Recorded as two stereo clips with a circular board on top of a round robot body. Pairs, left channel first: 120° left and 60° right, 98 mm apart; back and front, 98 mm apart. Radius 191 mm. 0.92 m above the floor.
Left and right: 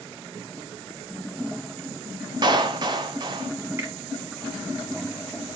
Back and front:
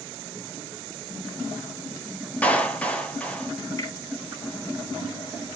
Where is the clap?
105° right, 2 m.